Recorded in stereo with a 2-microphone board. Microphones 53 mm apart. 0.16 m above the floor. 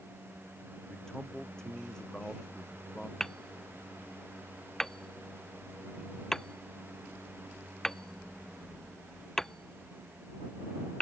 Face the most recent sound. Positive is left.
turn(degrees=10)  # may be behind; listen again after turning